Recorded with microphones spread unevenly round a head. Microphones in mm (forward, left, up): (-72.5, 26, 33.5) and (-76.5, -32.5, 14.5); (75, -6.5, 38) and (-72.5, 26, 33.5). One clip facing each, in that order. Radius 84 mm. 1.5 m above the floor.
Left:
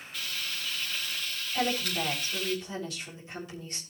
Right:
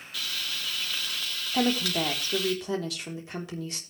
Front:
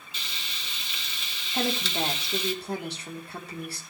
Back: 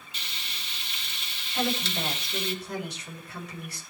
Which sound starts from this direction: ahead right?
Frying, at 0.1 s.